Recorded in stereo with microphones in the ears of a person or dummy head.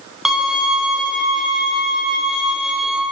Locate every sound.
0.2 s a violin: centre (ahead or behind), 0.5 m